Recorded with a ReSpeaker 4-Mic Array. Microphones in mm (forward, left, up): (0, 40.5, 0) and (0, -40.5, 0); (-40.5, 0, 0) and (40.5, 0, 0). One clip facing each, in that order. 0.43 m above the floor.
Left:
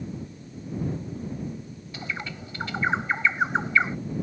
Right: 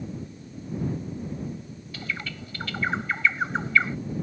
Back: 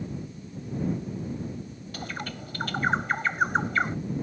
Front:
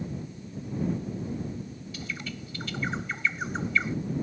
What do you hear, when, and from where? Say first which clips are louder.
1.9 s a bird: even, back 3 dB; 155° left